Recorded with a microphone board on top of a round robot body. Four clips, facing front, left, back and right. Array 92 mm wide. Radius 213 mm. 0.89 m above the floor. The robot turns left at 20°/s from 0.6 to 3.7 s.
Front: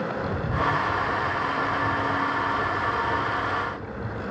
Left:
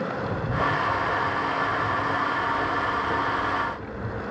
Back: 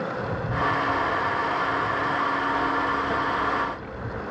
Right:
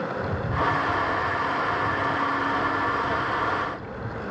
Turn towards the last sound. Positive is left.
turn(degrees=155)